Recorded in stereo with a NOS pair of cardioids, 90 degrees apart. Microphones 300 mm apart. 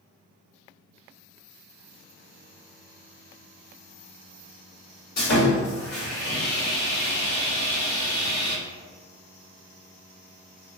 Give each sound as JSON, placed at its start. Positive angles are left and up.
{"t": 5.2, "sound": "sawing", "azimuth_deg": 60, "distance_m": 1.2}